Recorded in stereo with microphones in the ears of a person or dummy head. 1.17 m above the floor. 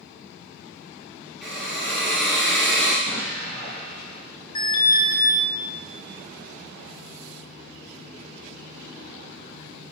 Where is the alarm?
20° left (ahead or behind), 0.9 m.